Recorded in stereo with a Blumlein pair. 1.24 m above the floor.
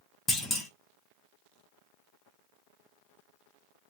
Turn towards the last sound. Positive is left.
turn(degrees=15)